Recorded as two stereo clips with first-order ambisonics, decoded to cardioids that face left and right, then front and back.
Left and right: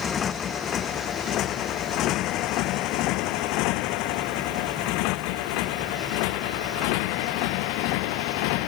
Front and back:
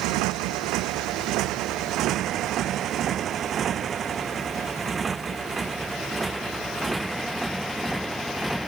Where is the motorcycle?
155° left; by 8.7 s 90° left.